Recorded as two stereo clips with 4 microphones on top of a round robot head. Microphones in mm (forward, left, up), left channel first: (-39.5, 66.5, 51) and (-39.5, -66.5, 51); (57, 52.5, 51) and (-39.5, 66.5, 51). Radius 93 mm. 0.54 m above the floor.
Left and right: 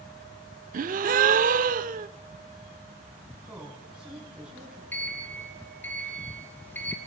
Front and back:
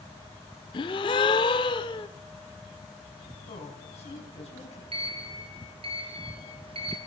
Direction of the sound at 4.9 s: 165° left.